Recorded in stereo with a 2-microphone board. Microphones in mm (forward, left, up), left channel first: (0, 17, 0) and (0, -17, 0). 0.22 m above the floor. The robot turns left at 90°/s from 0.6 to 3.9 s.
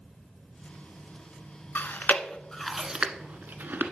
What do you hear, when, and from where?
1.8 s chewing: 70° left (ahead or behind), 0.7 m; by 3.9 s 65° right (ahead or behind), 0.7 m